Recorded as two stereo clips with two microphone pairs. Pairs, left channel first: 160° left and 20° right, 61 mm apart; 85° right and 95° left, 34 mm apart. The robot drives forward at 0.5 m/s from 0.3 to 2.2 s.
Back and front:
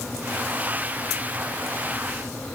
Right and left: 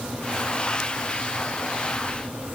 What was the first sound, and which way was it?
Only background noise.